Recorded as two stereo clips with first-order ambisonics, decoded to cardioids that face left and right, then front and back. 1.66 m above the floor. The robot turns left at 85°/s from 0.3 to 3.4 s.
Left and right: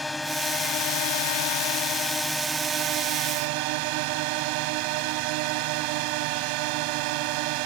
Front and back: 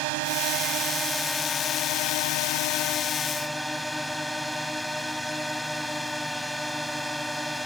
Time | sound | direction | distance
0.0 | a drone | 175° left | ?